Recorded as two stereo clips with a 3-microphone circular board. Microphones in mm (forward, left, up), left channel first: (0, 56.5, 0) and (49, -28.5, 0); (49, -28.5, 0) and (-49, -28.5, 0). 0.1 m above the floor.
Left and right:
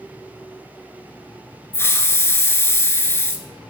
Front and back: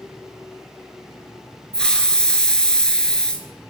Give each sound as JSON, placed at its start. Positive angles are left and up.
{"t": 1.7, "sound": "a hiss", "azimuth_deg": 75, "distance_m": 1.0}